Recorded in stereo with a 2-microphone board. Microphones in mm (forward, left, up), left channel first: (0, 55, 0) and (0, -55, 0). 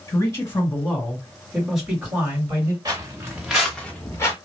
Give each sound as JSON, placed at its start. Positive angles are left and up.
{"t": 0.1, "sound": "a man speaking", "side_deg": 30, "distance_m": 1.8}
{"t": 2.9, "sound": "footsteps", "side_deg": -35, "distance_m": 1.4}